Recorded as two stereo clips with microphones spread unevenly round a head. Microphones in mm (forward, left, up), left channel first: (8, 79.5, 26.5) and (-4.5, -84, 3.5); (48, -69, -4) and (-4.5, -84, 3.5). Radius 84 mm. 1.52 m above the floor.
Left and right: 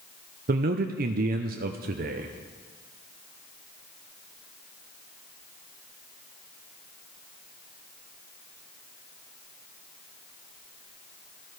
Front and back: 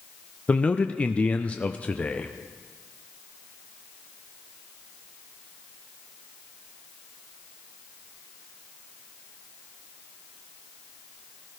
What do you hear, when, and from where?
0.5 s a man speaking: 55° right, 0.6 m